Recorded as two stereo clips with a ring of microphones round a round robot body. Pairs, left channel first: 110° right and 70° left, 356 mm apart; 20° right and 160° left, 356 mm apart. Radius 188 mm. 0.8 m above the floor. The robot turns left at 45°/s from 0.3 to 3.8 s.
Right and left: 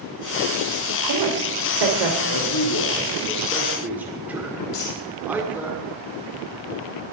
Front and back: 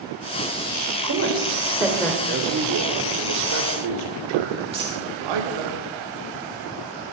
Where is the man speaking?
140° right, 1.9 m; by 5.7 s 155° left, 1.9 m.